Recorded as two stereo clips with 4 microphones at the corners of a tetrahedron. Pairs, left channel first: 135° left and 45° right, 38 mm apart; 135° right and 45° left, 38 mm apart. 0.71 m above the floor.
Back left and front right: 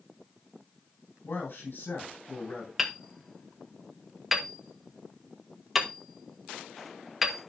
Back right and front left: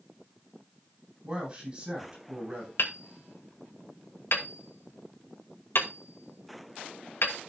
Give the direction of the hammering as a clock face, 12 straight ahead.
4 o'clock.